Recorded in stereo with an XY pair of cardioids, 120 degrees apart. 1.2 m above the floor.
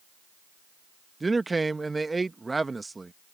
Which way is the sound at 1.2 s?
15° right.